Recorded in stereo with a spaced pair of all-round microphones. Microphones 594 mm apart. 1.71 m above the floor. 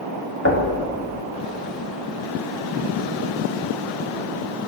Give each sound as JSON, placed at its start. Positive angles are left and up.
{"t": 0.5, "sound": "knocking", "side_deg": 20, "distance_m": 0.8}